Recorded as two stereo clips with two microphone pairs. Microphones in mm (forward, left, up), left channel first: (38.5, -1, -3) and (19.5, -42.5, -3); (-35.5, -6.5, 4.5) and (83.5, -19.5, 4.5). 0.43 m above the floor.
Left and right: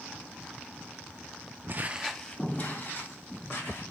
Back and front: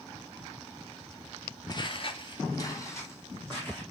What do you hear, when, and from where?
1.7 s footsteps: 140° right, 0.6 m; by 3.8 s 100° left, 2 m